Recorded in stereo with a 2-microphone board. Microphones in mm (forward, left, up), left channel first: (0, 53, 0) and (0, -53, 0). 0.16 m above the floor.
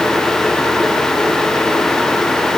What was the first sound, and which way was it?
Only background noise.